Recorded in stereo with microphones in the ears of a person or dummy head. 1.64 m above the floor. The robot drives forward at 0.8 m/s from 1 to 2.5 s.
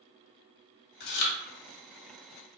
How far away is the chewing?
About 1.0 m.